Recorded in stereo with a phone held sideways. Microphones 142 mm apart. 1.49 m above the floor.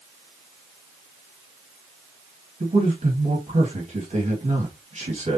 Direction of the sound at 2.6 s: 50° right (ahead or behind).